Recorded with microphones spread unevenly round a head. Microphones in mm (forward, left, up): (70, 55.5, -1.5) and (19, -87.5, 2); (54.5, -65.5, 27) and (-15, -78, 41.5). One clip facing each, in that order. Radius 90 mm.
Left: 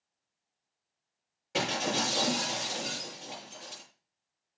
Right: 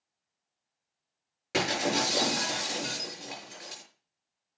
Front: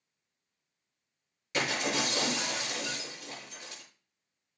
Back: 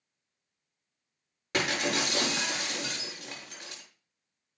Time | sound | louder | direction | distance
1.5 | breaking glass | right 3 dB, back 2 dB | 145° right | 6 m